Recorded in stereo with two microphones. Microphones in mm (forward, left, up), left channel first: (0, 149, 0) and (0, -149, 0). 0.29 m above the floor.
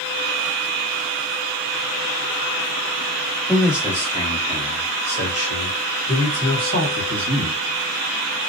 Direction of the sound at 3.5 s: Centre (ahead or behind).